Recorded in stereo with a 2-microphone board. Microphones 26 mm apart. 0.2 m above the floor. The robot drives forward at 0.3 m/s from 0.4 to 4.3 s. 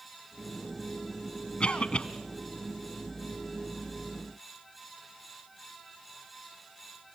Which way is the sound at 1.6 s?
45° left (ahead or behind).